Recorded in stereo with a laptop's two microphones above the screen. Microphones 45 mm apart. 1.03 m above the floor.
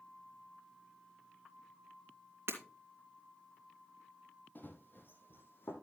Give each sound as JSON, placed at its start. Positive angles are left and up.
{"t": 2.5, "sound": "breaking glass", "side_deg": -60, "distance_m": 2.5}
{"t": 4.5, "sound": "running footsteps", "side_deg": 40, "distance_m": 2.0}